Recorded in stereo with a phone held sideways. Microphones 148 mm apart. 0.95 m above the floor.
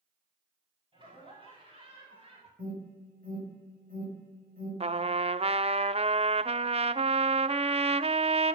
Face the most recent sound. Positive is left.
turn(degrees=-45)  # may be behind; listen again after turning